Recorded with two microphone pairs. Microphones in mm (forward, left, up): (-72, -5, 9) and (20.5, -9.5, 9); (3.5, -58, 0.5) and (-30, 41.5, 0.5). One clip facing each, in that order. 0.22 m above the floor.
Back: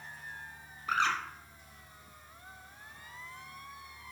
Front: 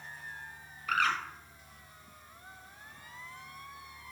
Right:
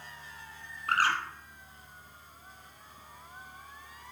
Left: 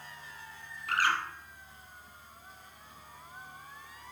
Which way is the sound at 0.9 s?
120° right.